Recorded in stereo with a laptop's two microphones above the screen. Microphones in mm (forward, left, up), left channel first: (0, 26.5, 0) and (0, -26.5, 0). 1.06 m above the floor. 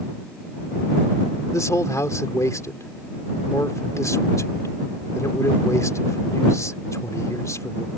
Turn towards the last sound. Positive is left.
turn(degrees=85)